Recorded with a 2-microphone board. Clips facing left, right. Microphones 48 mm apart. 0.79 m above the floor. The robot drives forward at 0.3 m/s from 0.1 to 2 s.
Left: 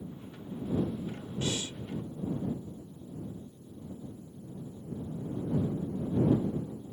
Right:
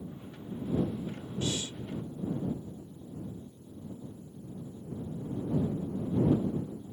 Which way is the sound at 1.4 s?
30° left (ahead or behind).